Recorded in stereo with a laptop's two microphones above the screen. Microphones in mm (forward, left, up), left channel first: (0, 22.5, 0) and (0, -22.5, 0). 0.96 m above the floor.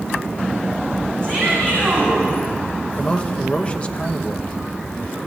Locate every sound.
1.2 s a shout: 30° left (ahead or behind), 5.5 m
3.0 s a man speaking: 25° left (ahead or behind), 0.9 m